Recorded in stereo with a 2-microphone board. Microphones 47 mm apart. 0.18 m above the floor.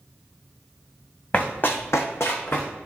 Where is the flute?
No flute in this recording.